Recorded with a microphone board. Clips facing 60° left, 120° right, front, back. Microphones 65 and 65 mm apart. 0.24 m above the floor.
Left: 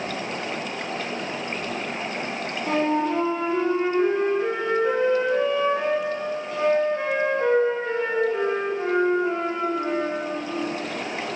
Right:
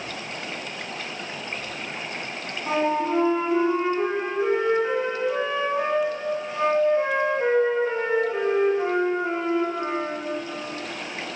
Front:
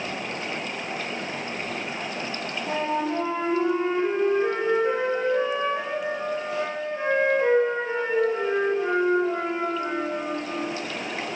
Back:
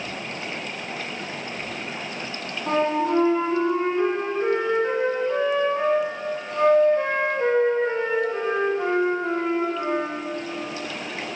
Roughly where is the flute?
Behind.